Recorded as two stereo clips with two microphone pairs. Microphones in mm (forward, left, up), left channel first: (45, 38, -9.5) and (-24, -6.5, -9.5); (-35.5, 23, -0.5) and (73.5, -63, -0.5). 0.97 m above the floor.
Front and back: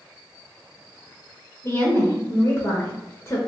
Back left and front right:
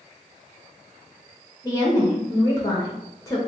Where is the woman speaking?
80° left, 0.9 m.